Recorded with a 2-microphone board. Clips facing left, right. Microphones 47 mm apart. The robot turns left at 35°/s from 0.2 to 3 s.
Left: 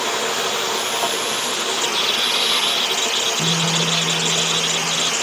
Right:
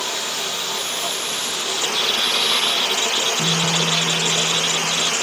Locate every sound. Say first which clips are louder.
0.0 s running water: left 5 dB; 80° left, 2.5 m; by 5.2 s 20° right, 2.5 m
3.4 s a guitar: even; 20° right (ahead or behind), 9.5 m